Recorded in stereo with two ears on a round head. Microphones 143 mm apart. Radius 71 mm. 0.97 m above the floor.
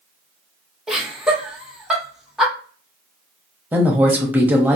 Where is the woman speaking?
10° right (ahead or behind), 1.0 m.